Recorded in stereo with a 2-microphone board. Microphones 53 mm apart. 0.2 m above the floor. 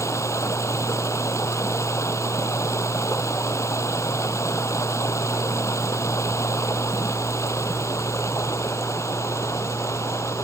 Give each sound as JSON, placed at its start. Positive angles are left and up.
{"t": 0.0, "sound": "running water", "side_deg": 65}